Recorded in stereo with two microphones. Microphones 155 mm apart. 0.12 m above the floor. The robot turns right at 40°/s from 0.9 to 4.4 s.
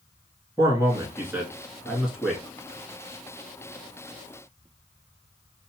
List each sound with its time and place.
0.6 s a man speaking: 20° right (ahead or behind), 1.1 m; by 2.4 s centre (ahead or behind), 1.1 m